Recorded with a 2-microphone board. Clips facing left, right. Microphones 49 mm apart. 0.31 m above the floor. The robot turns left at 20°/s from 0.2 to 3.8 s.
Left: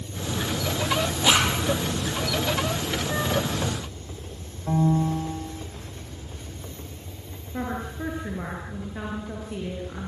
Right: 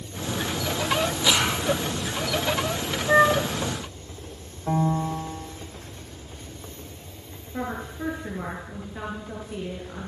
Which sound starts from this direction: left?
A zipper, at 1.2 s.